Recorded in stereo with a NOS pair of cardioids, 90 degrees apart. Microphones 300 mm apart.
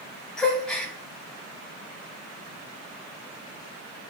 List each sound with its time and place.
0.4 s a gasp: 5° left, 1.3 m